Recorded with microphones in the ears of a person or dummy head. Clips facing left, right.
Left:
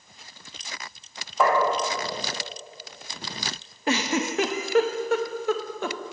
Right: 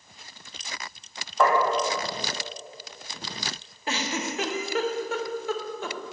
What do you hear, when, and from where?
1.4 s tapping: centre (ahead or behind), 2.5 m
3.9 s a giggle: 50° left (ahead or behind), 0.6 m